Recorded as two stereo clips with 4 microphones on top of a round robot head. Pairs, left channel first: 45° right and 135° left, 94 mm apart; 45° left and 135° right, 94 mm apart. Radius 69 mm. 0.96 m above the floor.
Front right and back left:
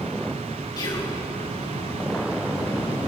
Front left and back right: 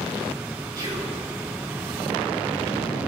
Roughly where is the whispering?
Right.